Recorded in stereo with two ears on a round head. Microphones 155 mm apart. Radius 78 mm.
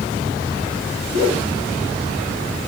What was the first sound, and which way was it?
A whoosh, 50° left (ahead or behind).